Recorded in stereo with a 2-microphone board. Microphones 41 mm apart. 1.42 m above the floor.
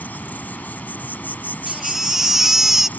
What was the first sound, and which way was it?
An insect, 50° left (ahead or behind).